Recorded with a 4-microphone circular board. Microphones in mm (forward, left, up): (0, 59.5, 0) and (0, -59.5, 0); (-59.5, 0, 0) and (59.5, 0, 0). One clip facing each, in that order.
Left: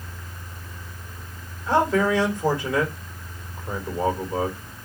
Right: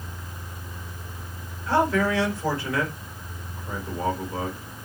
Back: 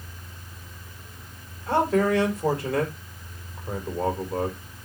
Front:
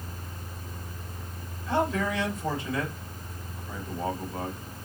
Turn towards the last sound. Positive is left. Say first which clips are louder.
# left 2 dB, back 6 dB
turn(degrees=165)